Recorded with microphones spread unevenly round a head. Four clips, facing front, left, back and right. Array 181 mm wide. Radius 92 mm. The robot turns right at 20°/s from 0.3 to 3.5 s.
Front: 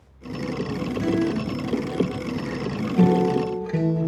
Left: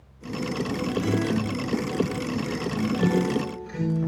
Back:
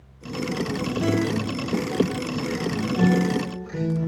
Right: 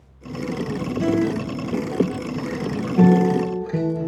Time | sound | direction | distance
1.0 | a guitar | 115° right | 3 m